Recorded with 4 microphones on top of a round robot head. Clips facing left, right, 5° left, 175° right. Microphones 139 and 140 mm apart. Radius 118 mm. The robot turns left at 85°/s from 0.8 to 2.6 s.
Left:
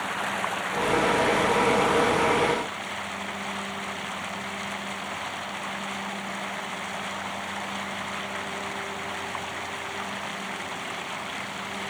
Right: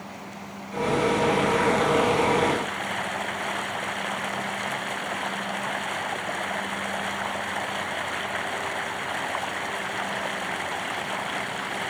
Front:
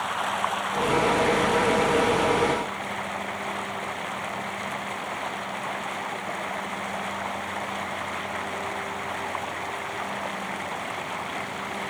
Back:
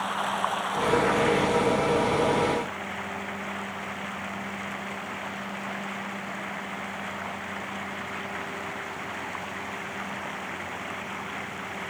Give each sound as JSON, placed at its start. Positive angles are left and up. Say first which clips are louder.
{"t": 0.0, "sound": "running water", "louder": "left 8 dB, front 1 dB", "azimuth_deg": 95}